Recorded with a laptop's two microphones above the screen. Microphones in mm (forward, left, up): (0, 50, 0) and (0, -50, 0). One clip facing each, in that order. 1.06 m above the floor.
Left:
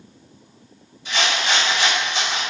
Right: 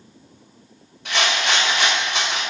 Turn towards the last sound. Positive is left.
turn(degrees=-65)  # may be behind; listen again after turning